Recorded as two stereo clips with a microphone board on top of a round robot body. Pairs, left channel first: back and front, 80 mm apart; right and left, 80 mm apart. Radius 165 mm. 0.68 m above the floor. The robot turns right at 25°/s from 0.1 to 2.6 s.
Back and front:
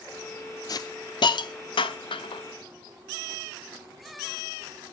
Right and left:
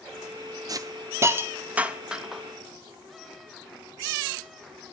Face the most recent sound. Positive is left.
turn(degrees=-175)